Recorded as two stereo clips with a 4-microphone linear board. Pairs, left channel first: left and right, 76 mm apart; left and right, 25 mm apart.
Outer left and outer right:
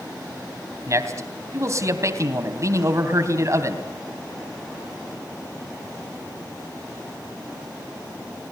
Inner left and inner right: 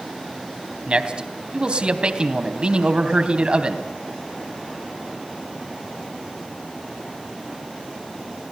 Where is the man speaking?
40° right (ahead or behind), 3 m.